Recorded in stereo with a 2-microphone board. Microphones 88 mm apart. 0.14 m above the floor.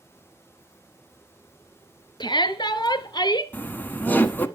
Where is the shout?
60° left (ahead or behind), 1.9 m; by 3.4 s 50° left (ahead or behind), 1.7 m.